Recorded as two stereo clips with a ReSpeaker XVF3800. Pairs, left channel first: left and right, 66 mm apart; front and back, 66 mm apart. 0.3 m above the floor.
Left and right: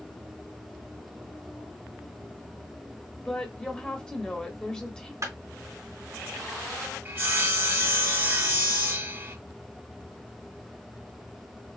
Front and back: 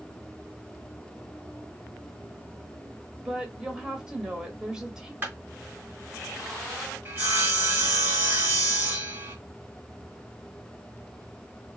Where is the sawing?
130° right, 1.5 m.